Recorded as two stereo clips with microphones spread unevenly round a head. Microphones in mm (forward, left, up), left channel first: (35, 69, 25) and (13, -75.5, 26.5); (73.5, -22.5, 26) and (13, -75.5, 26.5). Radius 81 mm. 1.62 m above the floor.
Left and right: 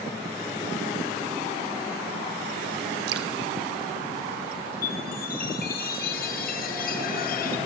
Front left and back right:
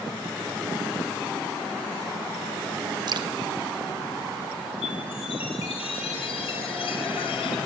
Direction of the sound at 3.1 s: 110° right.